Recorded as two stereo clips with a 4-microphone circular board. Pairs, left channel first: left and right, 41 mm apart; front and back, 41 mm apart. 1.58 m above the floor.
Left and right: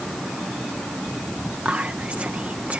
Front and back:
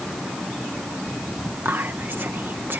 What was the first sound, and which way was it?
Whispering, 145° right.